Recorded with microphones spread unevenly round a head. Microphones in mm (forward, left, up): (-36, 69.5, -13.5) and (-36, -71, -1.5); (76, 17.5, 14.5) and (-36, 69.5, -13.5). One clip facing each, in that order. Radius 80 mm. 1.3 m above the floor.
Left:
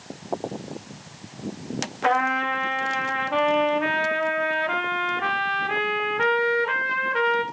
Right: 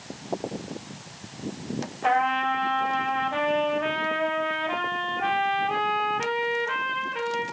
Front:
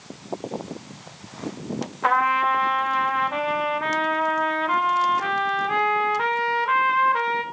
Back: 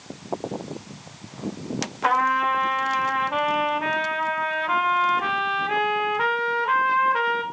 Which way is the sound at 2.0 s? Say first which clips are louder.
Even, front 1 dB; 70° left.